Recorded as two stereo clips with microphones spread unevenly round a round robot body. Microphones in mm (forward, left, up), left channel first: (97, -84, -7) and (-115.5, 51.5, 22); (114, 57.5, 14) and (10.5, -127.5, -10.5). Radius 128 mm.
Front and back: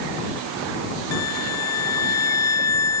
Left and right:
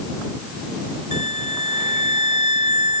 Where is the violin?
5° left.